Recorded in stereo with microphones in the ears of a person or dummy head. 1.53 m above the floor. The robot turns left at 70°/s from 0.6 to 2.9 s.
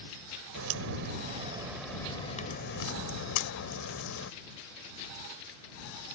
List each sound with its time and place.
0.6 s a crack: 95° right; by 4.3 s 105° left